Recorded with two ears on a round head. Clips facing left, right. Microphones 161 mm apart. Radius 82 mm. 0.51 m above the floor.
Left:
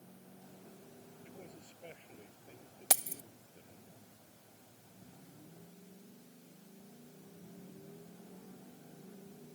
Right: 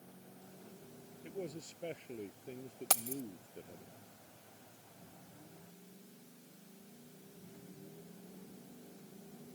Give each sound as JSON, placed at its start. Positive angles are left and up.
{"t": 1.2, "sound": "a man speaking", "side_deg": -55}
{"t": 2.9, "sound": "keys jangling", "side_deg": 10}